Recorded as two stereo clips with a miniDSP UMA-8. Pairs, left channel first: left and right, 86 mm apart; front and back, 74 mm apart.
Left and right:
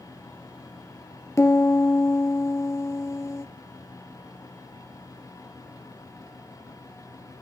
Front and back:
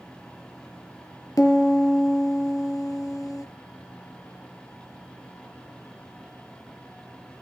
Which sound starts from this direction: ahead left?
A piano, at 1.4 s.